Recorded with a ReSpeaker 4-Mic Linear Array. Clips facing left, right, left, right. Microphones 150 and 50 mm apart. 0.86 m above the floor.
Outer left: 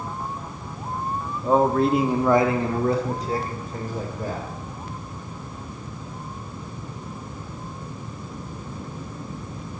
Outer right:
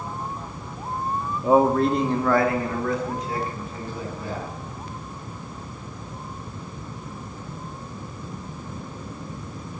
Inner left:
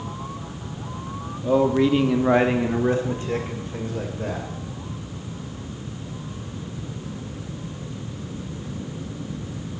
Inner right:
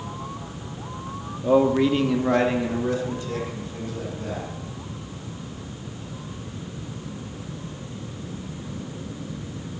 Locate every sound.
1.4 s a man speaking: 15° right (ahead or behind), 1.1 m; by 4.5 s 50° left (ahead or behind), 3 m